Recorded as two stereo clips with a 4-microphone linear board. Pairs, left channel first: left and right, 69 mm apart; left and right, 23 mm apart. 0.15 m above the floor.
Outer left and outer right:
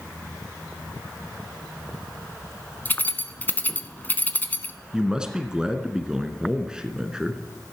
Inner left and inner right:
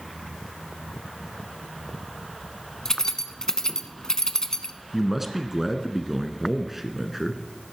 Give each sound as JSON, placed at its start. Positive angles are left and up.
{"t": 2.9, "sound": "keys jangling", "side_deg": 30, "distance_m": 0.8}
{"t": 4.9, "sound": "a man speaking", "side_deg": -10, "distance_m": 1.5}